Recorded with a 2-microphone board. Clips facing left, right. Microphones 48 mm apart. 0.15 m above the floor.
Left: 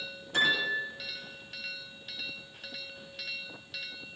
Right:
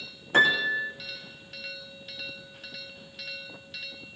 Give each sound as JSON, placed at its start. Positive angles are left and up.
{"t": 0.3, "sound": "a piano", "side_deg": -45, "distance_m": 3.5}